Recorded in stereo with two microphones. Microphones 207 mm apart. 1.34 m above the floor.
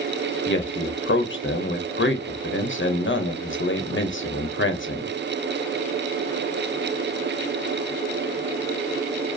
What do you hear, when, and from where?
0.5 s a man speaking: 70° left (ahead or behind), 0.6 m